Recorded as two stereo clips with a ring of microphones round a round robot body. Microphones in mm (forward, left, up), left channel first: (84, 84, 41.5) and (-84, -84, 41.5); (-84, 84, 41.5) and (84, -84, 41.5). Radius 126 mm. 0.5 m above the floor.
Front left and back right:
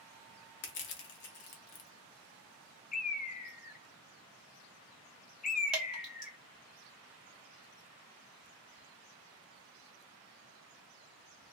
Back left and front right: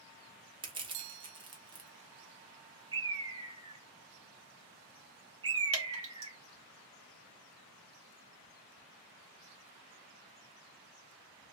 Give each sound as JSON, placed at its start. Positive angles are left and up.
{"t": 0.6, "sound": "crushing", "azimuth_deg": 20, "distance_m": 0.8}
{"t": 2.9, "sound": "a bird", "azimuth_deg": 15, "distance_m": 0.7}
{"t": 5.7, "sound": "dripping", "azimuth_deg": -50, "distance_m": 2.0}